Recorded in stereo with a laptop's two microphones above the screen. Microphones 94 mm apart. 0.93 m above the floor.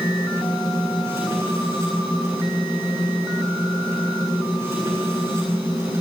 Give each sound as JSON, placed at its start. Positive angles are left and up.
{"t": 0.0, "sound": "a machine running", "side_deg": -30, "distance_m": 9.5}